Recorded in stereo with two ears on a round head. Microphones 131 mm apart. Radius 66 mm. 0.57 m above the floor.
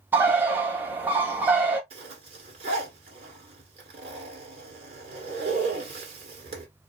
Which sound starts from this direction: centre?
A bird, at 0.1 s.